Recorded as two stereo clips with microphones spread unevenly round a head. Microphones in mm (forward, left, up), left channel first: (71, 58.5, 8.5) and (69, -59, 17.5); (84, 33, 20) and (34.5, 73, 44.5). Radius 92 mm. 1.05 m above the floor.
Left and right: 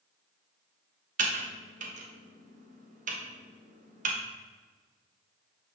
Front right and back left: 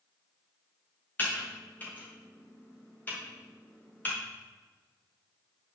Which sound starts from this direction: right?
Typing on a keyboard, at 1.2 s.